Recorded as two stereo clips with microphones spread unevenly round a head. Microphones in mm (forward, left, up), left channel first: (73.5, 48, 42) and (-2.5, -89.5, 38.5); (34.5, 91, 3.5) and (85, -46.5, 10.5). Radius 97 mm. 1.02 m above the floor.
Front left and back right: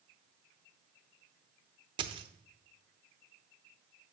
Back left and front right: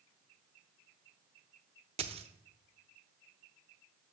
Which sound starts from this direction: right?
A dropped coin, at 2.0 s.